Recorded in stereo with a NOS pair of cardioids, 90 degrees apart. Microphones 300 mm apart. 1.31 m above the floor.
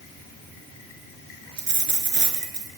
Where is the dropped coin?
40° right, 4 m.